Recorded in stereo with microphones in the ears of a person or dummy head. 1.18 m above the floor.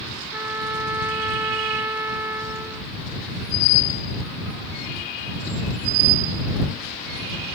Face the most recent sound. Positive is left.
turn(degrees=-10)  # may be behind; listen again after turning